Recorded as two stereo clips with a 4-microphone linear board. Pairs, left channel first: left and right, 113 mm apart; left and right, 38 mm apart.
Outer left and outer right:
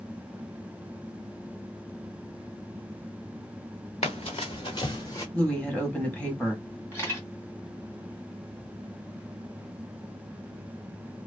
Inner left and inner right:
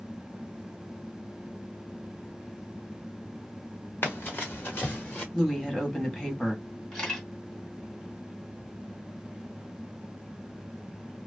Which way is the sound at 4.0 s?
65° left (ahead or behind).